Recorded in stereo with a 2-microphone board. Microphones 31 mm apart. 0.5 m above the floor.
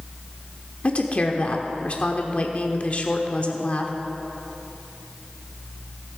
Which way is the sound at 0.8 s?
40° left (ahead or behind).